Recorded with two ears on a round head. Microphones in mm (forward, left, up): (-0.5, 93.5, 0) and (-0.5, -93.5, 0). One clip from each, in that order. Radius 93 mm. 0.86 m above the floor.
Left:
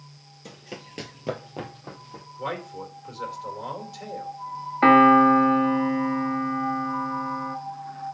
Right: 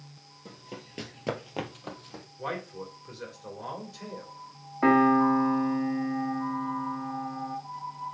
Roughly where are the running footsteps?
Left.